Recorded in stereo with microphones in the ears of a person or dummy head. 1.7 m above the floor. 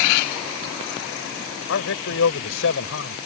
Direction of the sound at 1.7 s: 65° left (ahead or behind).